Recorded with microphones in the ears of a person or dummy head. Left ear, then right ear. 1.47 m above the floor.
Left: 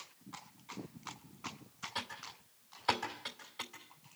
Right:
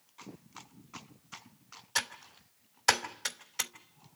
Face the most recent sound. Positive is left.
turn(degrees=-70)  # may be behind; listen again after turning